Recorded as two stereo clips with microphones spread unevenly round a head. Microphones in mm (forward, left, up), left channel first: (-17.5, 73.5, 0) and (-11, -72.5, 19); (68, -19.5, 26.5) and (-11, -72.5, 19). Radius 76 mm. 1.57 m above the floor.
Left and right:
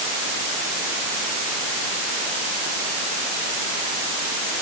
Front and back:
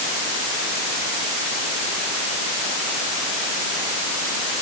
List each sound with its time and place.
Only background noise.